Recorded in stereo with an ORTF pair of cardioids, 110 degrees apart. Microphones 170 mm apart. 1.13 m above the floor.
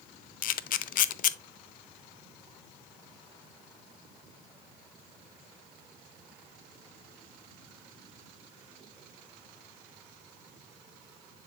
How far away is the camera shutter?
About 0.5 m.